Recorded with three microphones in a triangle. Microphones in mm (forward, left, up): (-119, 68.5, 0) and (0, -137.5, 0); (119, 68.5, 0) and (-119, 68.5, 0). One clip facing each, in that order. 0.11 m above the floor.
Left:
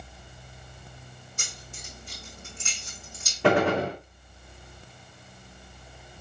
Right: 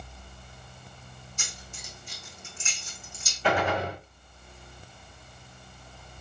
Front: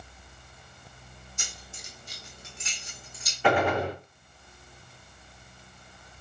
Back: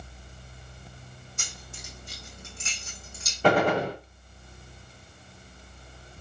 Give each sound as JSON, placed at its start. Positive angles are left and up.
{"t": 1.4, "sound": "keys jangling", "azimuth_deg": 150, "distance_m": 4.5}
{"t": 3.4, "sound": "a gunshot", "azimuth_deg": 130, "distance_m": 4.5}